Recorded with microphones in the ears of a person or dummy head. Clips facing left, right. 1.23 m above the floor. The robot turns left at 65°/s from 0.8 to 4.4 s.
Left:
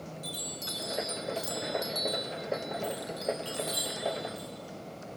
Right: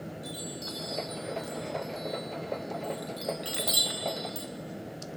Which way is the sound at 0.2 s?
30° left (ahead or behind).